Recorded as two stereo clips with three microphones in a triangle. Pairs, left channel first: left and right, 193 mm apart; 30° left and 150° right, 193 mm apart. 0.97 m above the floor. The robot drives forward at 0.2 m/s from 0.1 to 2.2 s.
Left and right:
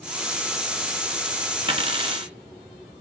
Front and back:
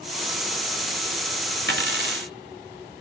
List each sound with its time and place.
1.7 s a dropped coin: 150° right, 1.9 m